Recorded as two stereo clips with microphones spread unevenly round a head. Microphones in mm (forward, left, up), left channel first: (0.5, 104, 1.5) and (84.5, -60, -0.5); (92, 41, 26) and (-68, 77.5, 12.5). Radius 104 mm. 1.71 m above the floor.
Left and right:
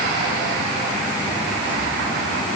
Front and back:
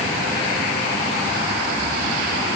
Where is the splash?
I don't hear a splash.